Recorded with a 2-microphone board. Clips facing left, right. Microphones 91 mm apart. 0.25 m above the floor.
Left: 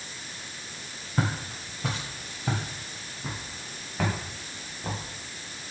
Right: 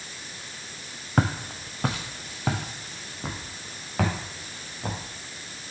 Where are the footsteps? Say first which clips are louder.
Right 4 dB; 70° right (ahead or behind), 1.1 m; by 5.0 s 85° right, 3.5 m.